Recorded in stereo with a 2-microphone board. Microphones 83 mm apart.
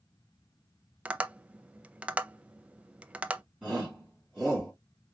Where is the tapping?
15° right (ahead or behind), 0.5 m.